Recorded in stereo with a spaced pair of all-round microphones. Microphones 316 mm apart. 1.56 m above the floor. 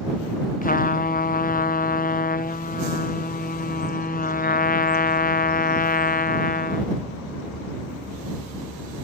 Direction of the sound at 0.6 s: 25° left (ahead or behind).